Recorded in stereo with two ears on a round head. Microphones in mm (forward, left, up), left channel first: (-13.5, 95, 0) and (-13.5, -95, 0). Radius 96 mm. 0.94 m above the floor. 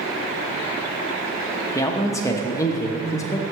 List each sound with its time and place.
1.8 s a man speaking: 15° left (ahead or behind), 1.0 m